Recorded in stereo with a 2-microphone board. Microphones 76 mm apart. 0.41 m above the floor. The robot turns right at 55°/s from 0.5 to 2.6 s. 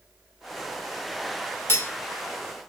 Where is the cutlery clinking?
35° left (ahead or behind), 0.5 m.